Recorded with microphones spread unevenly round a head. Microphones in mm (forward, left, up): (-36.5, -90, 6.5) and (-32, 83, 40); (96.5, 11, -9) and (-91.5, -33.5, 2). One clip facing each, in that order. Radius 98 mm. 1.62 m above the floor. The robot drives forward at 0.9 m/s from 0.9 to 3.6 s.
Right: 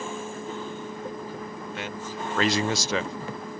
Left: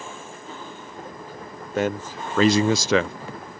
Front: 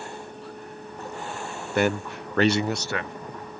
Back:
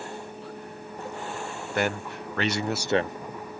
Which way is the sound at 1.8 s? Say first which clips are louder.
Left 12 dB, front 4 dB; 30° left.